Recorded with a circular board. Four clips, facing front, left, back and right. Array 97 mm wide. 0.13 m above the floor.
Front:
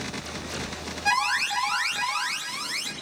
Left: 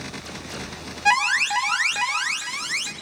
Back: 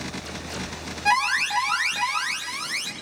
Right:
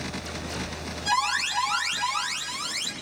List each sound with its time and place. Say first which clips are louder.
1.1 s an alarm: left 5 dB, back 3 dB; 100° left, 3.5 m